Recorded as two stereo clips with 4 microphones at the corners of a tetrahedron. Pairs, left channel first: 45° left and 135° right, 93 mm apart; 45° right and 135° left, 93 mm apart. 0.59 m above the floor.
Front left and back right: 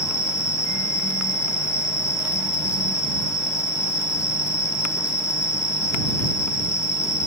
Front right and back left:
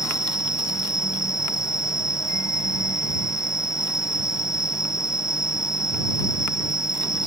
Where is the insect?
55° left.